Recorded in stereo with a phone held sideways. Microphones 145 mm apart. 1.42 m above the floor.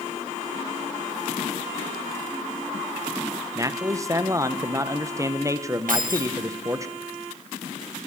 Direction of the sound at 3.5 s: 20° right (ahead or behind).